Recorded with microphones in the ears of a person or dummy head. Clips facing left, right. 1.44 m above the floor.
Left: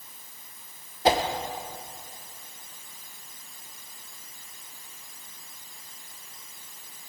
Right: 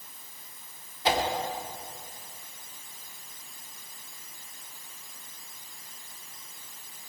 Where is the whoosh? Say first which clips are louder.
Left 5 dB; 35° left (ahead or behind), 1.2 m.